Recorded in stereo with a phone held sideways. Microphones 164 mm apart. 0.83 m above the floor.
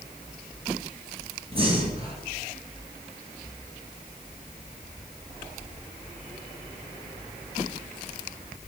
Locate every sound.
1.5 s breathing: 35° right (ahead or behind), 2 m